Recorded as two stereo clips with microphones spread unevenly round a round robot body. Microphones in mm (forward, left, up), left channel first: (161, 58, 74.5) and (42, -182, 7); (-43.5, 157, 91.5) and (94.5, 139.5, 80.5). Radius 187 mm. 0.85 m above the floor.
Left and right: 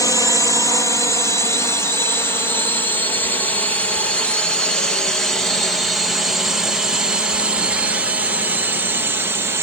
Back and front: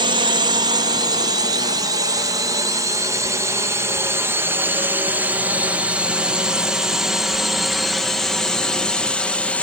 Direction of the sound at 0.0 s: 25° right.